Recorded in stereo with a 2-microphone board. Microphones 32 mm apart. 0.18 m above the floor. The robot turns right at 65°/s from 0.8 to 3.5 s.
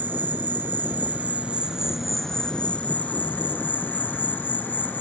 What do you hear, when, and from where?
0.0 s an insect: 85° right; by 5.0 s 90° left